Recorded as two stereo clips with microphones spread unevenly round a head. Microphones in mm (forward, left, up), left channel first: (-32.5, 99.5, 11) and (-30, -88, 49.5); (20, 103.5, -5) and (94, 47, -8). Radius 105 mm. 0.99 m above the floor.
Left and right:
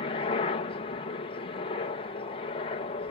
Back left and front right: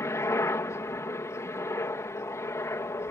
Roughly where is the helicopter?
Left.